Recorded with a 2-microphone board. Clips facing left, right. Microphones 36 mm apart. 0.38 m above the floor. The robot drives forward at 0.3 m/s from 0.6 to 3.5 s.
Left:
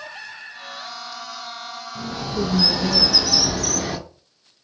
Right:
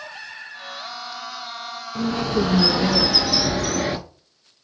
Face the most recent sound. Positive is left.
turn(degrees=-30)  # may be behind; listen again after turning